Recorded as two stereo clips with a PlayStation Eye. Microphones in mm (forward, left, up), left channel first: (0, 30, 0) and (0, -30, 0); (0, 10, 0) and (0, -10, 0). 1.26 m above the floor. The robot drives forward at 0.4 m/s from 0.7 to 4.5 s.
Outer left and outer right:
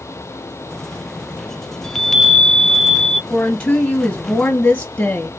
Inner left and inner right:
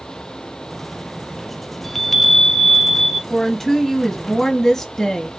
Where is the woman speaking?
25° left (ahead or behind), 1.4 m; by 5.3 s 40° left (ahead or behind), 1.0 m.